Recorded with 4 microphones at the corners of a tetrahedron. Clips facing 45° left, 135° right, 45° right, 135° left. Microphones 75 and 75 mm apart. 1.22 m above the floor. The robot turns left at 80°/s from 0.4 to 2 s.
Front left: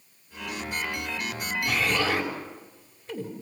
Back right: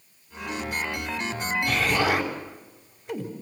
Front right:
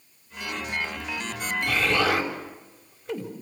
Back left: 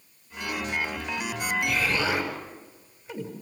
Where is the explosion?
35° right, 4 m; by 3.3 s 60° right, 4 m.